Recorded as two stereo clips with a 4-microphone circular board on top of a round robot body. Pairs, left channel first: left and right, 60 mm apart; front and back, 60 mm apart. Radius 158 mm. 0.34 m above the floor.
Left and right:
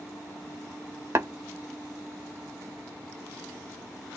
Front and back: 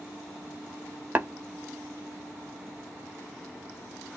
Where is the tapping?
125° right, 1.2 m.